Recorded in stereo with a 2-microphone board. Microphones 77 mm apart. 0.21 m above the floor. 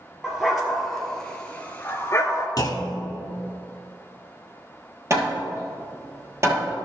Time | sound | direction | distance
0.2 | a dog barking | 5° right (ahead or behind) | 1.7 m
2.6 | a clunk | 50° left (ahead or behind) | 1.1 m
5.1 | hammering | 35° right (ahead or behind) | 1.8 m